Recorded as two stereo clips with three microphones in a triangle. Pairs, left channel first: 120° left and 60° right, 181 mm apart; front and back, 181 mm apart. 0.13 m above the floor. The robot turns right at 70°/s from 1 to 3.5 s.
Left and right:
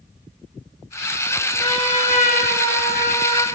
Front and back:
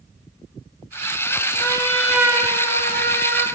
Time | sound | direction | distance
1.6 | a trumpet | 55° left | 2.5 m